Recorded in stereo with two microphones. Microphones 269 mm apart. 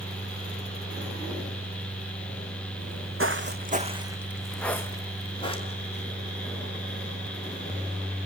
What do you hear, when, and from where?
2.8 s footsteps: 70° right (ahead or behind), 1.1 m; by 6.0 s 25° left (ahead or behind), 2.5 m